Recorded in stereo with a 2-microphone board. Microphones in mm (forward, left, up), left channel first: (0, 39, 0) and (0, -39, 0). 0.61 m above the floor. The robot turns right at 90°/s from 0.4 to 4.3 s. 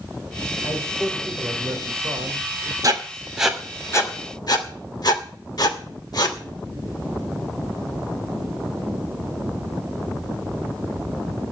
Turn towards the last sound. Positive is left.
turn(degrees=55)  # may be behind; listen again after turning